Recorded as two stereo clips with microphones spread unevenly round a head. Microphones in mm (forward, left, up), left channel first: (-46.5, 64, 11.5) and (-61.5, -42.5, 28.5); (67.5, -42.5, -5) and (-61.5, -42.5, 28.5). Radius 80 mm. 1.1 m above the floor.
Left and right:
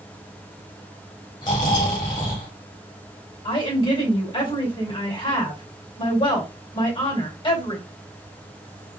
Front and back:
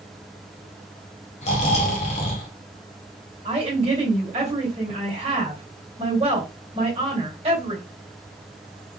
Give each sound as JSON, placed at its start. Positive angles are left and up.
{"t": 1.4, "sound": "snoring", "azimuth_deg": 35, "distance_m": 0.8}
{"t": 3.5, "sound": "a woman speaking", "azimuth_deg": 120, "distance_m": 2.0}